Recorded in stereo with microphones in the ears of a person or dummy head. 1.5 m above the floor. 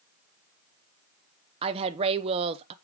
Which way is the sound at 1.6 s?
30° right (ahead or behind).